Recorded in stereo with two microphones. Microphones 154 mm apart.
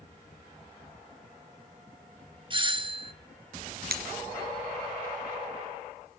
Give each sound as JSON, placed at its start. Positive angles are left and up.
{"t": 2.5, "sound": "a doorbell", "side_deg": -30, "distance_m": 1.5}
{"t": 3.9, "sound": "breaking glass", "side_deg": -80, "distance_m": 3.0}